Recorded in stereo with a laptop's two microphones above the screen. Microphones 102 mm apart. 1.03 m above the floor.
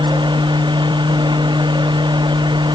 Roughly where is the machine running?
Right.